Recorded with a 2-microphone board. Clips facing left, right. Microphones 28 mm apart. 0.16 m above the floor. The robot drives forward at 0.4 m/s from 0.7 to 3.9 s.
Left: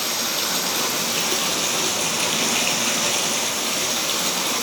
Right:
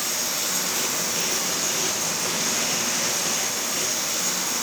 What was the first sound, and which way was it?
Running water, 50° left (ahead or behind).